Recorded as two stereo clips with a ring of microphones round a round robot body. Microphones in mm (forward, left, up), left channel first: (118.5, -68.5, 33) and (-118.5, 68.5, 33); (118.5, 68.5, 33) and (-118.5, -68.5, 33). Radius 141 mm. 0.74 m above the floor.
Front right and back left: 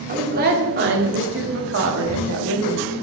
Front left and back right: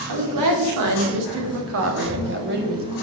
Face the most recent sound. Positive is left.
turn(degrees=155)